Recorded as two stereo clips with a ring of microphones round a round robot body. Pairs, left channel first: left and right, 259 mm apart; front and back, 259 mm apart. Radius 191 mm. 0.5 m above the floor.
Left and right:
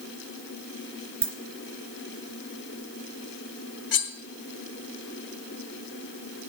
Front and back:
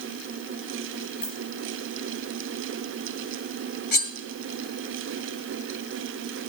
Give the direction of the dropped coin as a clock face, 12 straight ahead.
2 o'clock.